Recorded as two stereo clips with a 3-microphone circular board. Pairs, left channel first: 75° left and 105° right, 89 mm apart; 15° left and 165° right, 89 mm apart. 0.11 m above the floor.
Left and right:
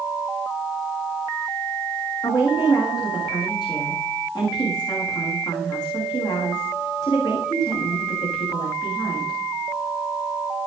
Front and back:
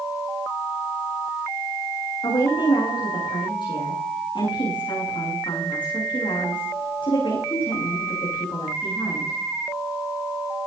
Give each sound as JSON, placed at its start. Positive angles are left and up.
{"t": 2.2, "sound": "a woman speaking", "azimuth_deg": 35, "distance_m": 9.0}